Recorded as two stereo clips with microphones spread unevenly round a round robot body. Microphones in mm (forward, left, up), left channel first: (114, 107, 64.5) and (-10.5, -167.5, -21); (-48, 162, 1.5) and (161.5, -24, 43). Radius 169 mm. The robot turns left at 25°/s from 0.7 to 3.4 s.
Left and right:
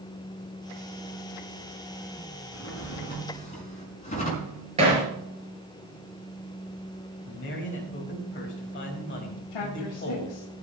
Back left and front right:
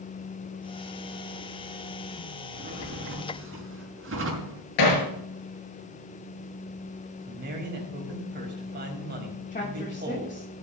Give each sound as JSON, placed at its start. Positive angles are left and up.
{"t": 2.5, "sound": "a drawer", "azimuth_deg": 20, "distance_m": 5.5}
{"t": 4.8, "sound": "hammering", "azimuth_deg": 170, "distance_m": 4.5}
{"t": 7.3, "sound": "a man speaking", "azimuth_deg": 10, "distance_m": 4.5}
{"t": 9.5, "sound": "a woman speaking", "azimuth_deg": 80, "distance_m": 3.0}